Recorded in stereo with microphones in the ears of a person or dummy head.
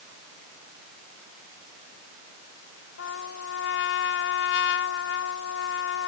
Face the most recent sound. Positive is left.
turn(degrees=70)  # may be behind; listen again after turning